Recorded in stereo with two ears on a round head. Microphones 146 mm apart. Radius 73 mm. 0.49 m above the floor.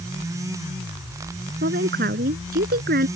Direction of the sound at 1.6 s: 60° right (ahead or behind).